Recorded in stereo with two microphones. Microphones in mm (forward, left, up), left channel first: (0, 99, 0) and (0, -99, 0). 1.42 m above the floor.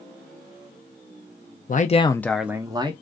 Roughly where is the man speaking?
Left.